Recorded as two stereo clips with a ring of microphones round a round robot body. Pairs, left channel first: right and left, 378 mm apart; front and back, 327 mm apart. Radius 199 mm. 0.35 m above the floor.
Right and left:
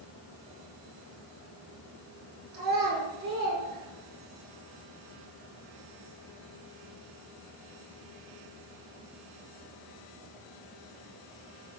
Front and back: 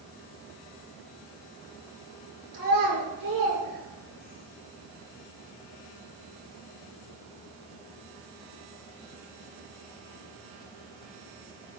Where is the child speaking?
155° left, 6 m.